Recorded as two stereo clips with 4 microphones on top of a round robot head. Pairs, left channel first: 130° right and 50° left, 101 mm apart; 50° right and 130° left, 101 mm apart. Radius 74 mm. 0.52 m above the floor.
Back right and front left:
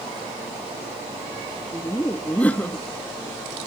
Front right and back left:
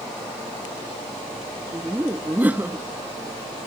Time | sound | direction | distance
1.7 | laughter | 175° left | 0.8 m